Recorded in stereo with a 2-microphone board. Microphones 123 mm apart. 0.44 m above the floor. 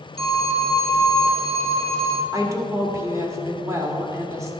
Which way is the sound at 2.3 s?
25° right (ahead or behind).